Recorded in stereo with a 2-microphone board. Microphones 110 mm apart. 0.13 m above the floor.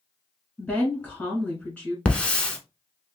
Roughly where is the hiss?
Centre.